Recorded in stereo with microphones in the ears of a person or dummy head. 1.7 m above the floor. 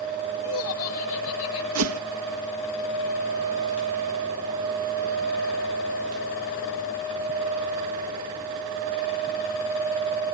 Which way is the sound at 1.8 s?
90° right.